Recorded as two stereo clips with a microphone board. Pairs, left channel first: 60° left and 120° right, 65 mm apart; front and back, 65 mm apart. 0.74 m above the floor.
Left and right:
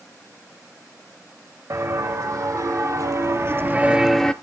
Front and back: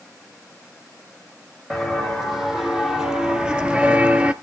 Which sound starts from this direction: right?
Footsteps, at 1.7 s.